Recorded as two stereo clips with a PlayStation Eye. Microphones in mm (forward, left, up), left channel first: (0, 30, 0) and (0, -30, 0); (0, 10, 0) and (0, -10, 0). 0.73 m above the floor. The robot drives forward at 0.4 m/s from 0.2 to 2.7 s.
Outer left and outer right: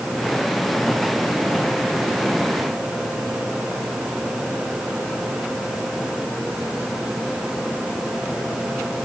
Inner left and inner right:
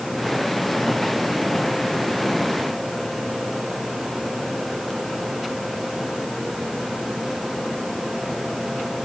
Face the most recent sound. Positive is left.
No sound to turn to.